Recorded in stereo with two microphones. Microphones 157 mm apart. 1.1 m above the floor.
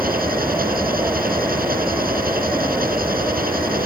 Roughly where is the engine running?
Right.